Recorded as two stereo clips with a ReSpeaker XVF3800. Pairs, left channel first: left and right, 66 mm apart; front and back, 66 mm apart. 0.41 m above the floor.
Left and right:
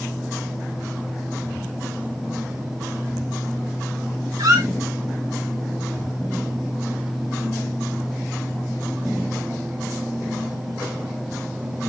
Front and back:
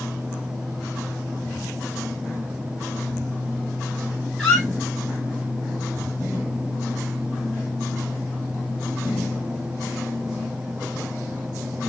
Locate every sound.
4.4 s a squeak: 75° right, 2.5 m